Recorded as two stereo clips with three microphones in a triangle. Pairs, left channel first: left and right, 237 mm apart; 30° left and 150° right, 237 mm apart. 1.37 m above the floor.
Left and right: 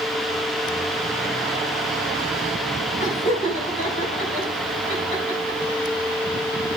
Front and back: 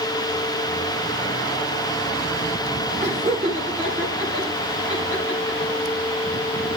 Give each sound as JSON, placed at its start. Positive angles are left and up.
{"t": 3.0, "sound": "laughter", "azimuth_deg": 150, "distance_m": 4.5}